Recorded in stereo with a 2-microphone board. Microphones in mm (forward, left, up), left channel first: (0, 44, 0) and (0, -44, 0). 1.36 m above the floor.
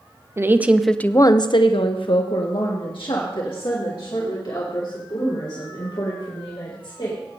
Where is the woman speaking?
30° right (ahead or behind), 0.8 m; by 7.2 s 70° left (ahead or behind), 5.5 m.